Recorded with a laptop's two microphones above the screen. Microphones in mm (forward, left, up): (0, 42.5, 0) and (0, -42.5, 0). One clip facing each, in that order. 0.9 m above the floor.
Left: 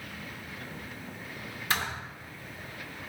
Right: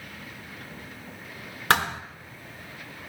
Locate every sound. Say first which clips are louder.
1.7 s a thud: right 9 dB; 80° right, 1.1 m